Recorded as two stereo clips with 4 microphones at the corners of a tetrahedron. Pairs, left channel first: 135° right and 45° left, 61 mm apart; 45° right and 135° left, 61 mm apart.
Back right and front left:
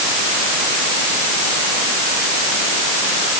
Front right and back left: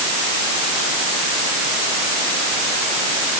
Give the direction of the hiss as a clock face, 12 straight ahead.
I don't hear a hiss.